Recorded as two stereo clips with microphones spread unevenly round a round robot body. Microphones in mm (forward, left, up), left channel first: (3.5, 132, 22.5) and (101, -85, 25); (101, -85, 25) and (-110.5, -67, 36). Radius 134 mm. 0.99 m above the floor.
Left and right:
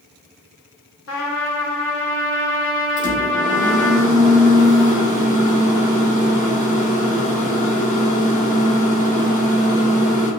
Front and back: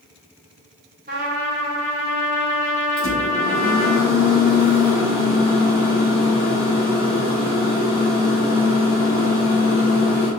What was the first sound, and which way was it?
A trumpet, 125° left.